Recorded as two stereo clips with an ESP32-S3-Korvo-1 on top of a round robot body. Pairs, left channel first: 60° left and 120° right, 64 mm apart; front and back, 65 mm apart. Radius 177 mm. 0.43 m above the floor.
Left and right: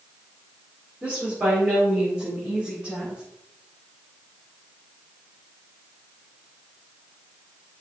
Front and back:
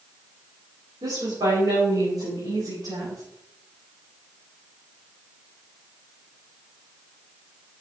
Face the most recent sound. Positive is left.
turn(degrees=165)